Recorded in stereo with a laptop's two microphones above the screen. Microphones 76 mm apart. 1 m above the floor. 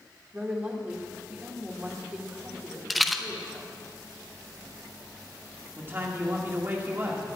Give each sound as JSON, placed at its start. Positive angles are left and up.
{"t": 0.3, "sound": "a woman speaking", "side_deg": -25, "distance_m": 2.0}
{"t": 2.9, "sound": "a rattle", "side_deg": 0, "distance_m": 0.7}
{"t": 5.8, "sound": "a man speaking", "side_deg": -30, "distance_m": 1.9}